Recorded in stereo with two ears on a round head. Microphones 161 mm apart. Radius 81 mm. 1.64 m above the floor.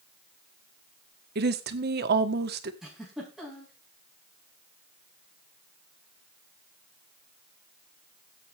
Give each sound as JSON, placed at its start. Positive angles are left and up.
{"t": 1.4, "sound": "a woman speaking", "side_deg": -60, "distance_m": 1.5}
{"t": 2.8, "sound": "a giggle", "side_deg": -5, "distance_m": 6.0}